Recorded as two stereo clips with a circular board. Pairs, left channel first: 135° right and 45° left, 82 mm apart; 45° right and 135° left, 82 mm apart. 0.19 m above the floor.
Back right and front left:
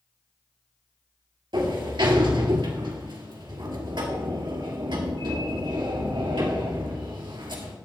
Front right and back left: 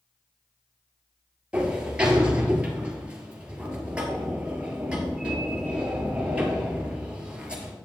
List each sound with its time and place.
1.5 s a sliding door: 60° left, 1.8 m